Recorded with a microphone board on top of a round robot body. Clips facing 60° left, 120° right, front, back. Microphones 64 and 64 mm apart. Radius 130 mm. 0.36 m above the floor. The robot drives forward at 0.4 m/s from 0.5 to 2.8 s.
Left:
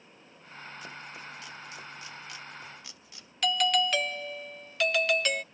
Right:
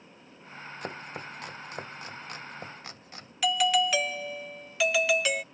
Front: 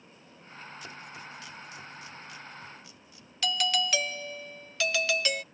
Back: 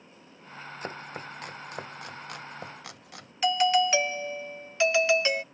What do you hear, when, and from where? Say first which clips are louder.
0.8 s chopping: right 8 dB, back 6 dB; 140° right; by 3.3 s 160° right
3.4 s a doorbell: right 2 dB, back 7 dB; 165° left